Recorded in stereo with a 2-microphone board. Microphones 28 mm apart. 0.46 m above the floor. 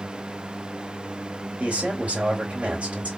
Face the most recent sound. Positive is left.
turn(degrees=-55)  # may be behind; listen again after turning